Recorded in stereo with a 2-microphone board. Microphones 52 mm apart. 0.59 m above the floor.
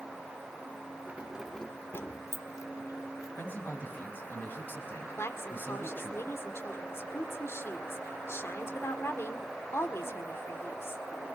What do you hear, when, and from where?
1.1 s keys jangling: 30° right (ahead or behind), 1.1 m; by 3.3 s 85° left, 2.5 m
3.4 s a man speaking: 40° left (ahead or behind), 5 m
5.2 s a woman speaking: 55° left (ahead or behind), 1.9 m